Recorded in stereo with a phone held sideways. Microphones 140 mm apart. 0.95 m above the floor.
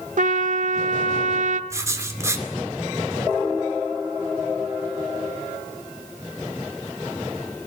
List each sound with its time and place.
0.2 s a trumpet: 60° right (ahead or behind), 1.1 m
1.7 s writing: 20° right (ahead or behind), 2.5 m